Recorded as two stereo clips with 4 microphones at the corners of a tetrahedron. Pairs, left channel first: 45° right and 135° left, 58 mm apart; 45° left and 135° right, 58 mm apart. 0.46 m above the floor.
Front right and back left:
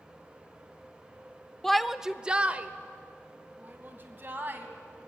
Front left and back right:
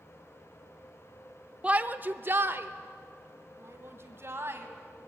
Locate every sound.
1.6 s a shout: 120° right, 0.8 m; by 4.7 s 175° right, 3 m